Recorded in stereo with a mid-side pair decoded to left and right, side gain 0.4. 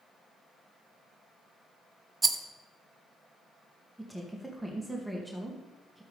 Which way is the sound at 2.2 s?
30° right.